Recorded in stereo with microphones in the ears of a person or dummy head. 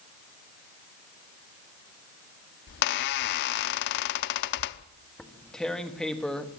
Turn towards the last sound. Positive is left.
turn(degrees=0)  # may be behind; listen again after turning